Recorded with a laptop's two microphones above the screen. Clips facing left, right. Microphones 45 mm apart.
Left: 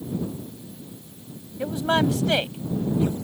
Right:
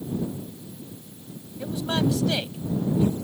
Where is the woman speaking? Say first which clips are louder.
Left 4 dB; 35° left (ahead or behind).